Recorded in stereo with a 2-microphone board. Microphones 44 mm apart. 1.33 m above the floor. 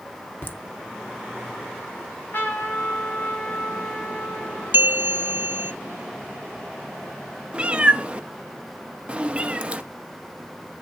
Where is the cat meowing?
25° right (ahead or behind), 0.8 m.